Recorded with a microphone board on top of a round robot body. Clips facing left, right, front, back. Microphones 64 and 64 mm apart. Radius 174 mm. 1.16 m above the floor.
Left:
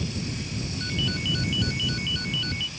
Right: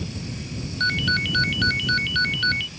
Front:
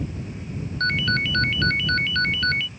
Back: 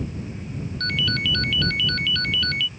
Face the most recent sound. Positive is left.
turn(degrees=-60)